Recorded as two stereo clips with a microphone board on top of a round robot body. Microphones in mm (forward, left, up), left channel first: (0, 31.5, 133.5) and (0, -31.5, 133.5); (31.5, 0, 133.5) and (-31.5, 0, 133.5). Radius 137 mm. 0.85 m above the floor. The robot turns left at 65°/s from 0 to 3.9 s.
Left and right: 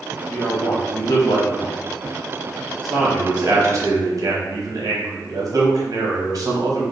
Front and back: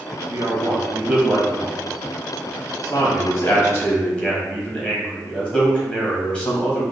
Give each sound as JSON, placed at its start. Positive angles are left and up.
{"t": 0.3, "sound": "a man speaking", "azimuth_deg": 165, "distance_m": 1.4}